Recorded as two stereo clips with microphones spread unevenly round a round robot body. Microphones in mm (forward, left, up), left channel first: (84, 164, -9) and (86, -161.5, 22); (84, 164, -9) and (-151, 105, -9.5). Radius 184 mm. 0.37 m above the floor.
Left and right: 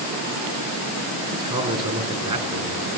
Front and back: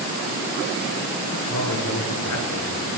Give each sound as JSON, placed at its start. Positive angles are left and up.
{"t": 1.3, "sound": "a man speaking", "azimuth_deg": -15, "distance_m": 4.0}